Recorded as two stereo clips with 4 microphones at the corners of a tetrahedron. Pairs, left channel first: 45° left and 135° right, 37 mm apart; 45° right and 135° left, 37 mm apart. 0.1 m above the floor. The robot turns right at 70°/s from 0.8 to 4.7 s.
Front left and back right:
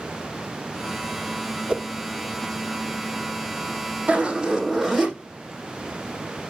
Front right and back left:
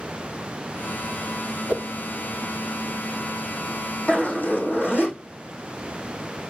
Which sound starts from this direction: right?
A zipper, at 4.1 s.